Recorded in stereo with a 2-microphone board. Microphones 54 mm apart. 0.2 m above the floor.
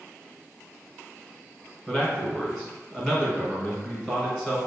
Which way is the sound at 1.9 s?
5° right (ahead or behind).